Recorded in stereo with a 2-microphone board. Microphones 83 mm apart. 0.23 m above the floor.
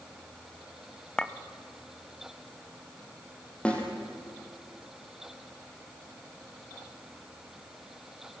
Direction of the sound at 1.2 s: 10° left (ahead or behind).